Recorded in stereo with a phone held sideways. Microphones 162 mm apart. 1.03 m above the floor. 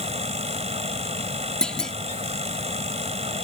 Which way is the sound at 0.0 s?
45° right (ahead or behind).